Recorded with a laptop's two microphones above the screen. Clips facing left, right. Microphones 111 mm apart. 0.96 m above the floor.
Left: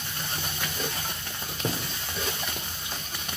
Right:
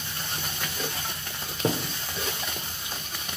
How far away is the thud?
About 1.5 m.